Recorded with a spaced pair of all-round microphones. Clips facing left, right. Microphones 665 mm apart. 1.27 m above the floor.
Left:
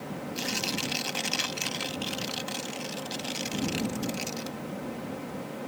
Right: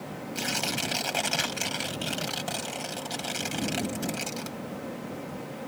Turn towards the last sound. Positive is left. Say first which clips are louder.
# right 2 dB
turn(degrees=-85)